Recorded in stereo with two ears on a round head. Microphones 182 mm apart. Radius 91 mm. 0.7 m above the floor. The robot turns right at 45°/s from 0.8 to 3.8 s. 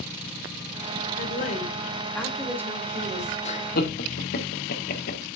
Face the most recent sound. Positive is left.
turn(degrees=45)  # may be behind; listen again after turning